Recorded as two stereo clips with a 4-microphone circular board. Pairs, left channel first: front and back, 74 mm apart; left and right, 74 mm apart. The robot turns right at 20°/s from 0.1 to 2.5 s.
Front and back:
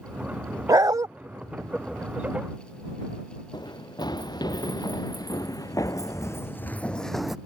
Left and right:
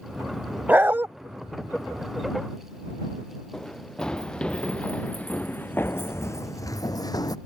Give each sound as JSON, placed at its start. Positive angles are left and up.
{"t": 0.7, "sound": "a dog barking", "azimuth_deg": -155}
{"t": 3.5, "sound": "running footsteps", "azimuth_deg": 10}